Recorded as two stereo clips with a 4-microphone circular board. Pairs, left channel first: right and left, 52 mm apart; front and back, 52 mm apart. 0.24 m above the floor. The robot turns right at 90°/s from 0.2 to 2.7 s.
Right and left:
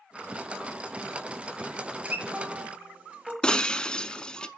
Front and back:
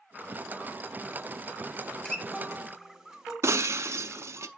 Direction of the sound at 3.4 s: 165° right.